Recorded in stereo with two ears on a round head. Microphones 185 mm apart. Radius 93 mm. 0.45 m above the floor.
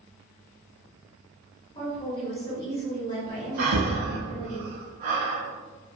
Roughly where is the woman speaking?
Left.